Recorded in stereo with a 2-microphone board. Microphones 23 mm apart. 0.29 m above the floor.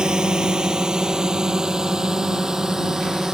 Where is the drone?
30° right (ahead or behind); by 3.4 s 15° right (ahead or behind).